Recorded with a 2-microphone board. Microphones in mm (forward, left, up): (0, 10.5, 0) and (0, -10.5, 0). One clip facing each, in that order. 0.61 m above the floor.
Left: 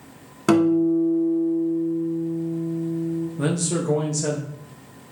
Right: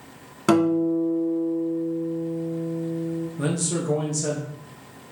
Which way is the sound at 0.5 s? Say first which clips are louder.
Left 2 dB; centre (ahead or behind).